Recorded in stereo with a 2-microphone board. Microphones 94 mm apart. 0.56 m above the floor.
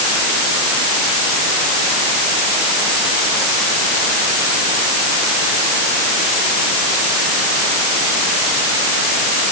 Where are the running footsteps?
No running footsteps in this recording.